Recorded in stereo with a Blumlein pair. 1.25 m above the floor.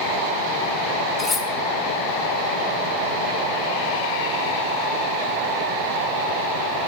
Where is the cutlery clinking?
15° left, 1.2 m.